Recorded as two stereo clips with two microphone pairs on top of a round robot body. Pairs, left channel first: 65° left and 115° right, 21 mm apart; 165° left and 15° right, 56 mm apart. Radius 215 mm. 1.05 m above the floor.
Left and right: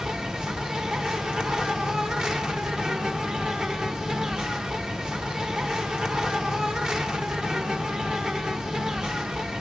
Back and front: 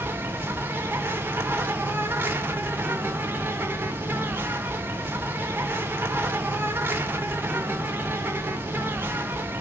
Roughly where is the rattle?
I don't hear a rattle.